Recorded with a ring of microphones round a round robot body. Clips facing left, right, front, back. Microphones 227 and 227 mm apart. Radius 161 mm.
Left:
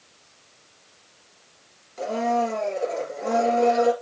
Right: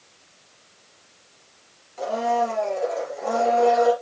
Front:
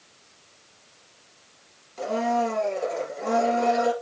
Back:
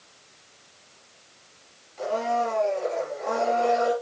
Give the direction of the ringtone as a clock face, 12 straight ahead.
I don't hear a ringtone.